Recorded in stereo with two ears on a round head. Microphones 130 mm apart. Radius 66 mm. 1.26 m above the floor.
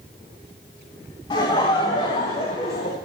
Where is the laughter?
35° left (ahead or behind), 2.5 m; by 3.0 s 55° left (ahead or behind), 1.6 m.